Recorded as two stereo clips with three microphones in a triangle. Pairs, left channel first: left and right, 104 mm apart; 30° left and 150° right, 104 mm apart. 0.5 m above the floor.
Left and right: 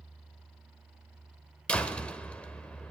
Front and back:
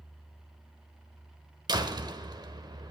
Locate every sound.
1.7 s a door slam: 170° left, 1.1 m